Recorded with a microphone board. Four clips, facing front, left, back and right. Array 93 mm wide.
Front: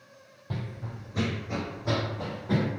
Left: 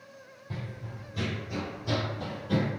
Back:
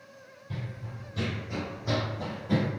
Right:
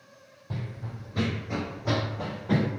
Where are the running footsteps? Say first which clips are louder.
Right 3 dB, front 3 dB; 20° right, 0.6 m; by 2.7 s 75° right, 1.5 m.